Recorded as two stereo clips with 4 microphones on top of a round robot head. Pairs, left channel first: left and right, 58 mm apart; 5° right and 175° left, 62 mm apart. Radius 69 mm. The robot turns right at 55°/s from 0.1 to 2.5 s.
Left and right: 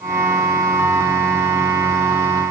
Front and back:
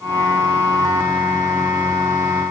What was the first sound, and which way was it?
Only background noise.